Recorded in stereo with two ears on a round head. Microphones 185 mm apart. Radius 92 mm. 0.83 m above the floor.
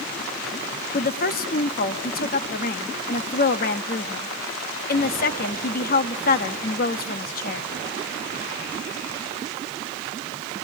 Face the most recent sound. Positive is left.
turn(degrees=45)  # may be behind; listen again after turning